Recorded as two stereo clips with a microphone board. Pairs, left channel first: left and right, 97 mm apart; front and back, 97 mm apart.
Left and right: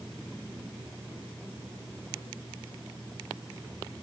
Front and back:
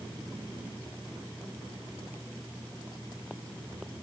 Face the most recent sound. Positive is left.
No sound to turn to.